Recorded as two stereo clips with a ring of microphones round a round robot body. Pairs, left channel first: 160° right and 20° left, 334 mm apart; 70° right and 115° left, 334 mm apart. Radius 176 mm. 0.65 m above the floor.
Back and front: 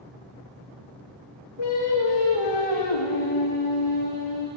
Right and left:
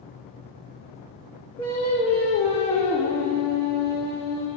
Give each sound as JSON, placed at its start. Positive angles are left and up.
{"t": 1.6, "sound": "singing", "azimuth_deg": -140, "distance_m": 8.0}